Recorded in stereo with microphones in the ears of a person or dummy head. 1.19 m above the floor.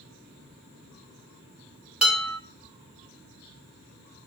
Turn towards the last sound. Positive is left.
turn(degrees=-5)  # may be behind; listen again after turning